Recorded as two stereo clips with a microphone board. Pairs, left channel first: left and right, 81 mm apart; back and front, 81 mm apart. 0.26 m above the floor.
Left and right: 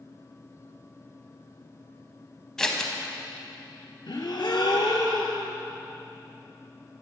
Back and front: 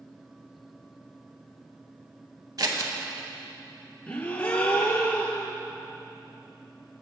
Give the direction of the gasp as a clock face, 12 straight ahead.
8 o'clock.